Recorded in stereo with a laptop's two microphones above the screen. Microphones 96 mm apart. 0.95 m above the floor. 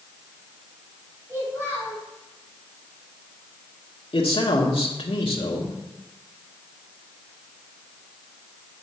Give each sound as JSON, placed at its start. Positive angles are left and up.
{"t": 1.3, "sound": "a child speaking", "side_deg": -25, "distance_m": 3.5}
{"t": 4.1, "sound": "a man speaking", "side_deg": 75, "distance_m": 1.7}